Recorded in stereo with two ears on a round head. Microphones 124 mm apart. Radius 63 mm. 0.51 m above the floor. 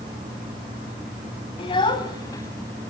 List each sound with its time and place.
1.6 s a child speaking: 40° left (ahead or behind), 2.5 m; by 2.9 s 15° left (ahead or behind), 3 m